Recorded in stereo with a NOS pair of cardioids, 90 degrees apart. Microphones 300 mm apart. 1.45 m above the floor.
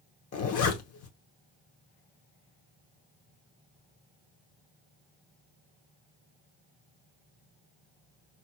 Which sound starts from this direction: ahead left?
A zipper, at 0.3 s.